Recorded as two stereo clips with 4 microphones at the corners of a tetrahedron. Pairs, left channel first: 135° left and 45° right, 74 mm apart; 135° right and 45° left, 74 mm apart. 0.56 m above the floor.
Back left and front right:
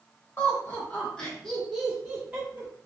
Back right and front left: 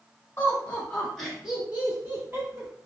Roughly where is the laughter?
Behind.